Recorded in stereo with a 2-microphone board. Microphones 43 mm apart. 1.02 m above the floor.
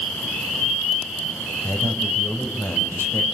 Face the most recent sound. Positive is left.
turn(degrees=70)  # may be behind; listen again after turning